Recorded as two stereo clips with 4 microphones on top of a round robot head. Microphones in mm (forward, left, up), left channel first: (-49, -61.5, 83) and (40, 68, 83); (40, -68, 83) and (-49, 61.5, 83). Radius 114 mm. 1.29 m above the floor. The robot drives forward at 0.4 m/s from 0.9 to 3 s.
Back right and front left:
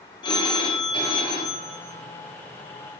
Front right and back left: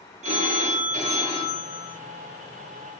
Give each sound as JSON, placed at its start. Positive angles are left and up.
{"t": 0.2, "sound": "a phone ringing", "azimuth_deg": 170, "distance_m": 1.0}